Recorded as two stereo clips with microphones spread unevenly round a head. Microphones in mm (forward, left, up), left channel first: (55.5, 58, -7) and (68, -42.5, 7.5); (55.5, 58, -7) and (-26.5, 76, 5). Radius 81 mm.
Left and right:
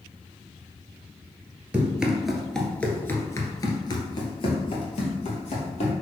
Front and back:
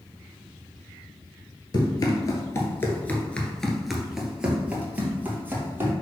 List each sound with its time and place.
1.7 s running footsteps: 25° right, 1.8 m; by 5.9 s 115° left, 3 m